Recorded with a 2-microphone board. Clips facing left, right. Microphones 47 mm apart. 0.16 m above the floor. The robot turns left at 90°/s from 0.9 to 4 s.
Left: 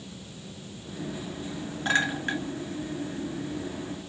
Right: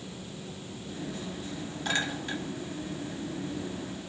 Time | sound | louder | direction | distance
1.9 | a clink | left 6 dB | 30° left (ahead or behind) | 1.7 m